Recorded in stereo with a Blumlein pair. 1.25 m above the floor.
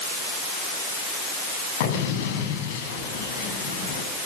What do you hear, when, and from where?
1.8 s an explosion: 50° left, 7 m